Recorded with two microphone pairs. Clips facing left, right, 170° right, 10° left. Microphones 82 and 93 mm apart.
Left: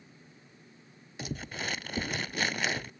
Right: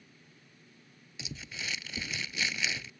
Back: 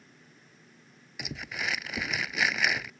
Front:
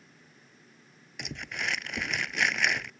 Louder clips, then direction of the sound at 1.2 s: Left 6 dB, even; 105° left.